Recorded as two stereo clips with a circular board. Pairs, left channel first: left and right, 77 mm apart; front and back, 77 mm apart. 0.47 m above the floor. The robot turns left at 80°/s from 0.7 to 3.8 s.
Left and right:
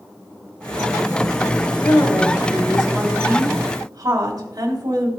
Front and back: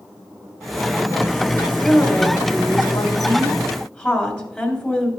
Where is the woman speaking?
90° left, 2 m; by 5.1 s 70° right, 2 m.